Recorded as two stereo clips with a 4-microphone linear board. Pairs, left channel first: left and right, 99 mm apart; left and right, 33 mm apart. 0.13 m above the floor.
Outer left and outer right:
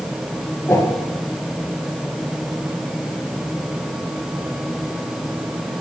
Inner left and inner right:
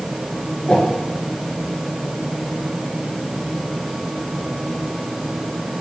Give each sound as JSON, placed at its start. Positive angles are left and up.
{"t": 0.7, "sound": "a whoosh", "side_deg": 30, "distance_m": 1.8}